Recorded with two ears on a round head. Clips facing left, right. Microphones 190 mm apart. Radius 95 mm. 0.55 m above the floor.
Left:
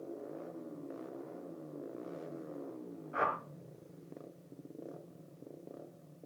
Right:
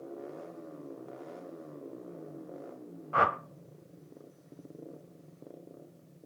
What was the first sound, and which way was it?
A whoosh, 75° right (ahead or behind).